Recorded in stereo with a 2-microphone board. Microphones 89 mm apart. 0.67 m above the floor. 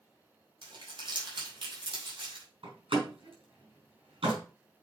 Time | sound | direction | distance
0.6 | crumpling | 65° right (ahead or behind) | 3 m
2.6 | a door slam | 85° right | 4 m